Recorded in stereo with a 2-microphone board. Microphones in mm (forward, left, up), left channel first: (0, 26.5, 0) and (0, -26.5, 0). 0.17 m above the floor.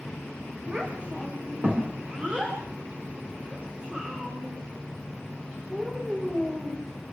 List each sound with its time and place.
0.7 s a child speaking: 30° right (ahead or behind), 9 m; by 6.8 s 25° right (ahead or behind), 12.5 m